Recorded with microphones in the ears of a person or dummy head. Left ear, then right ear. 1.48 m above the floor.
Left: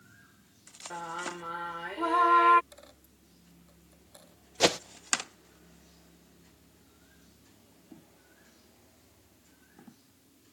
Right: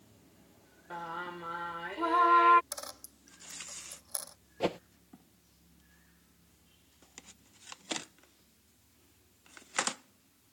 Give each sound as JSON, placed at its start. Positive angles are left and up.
{"t": 0.9, "sound": "singing", "side_deg": 5}
{"t": 2.7, "sound": "a dropped coin", "side_deg": -40}
{"t": 4.6, "sound": "a whoosh", "side_deg": 55}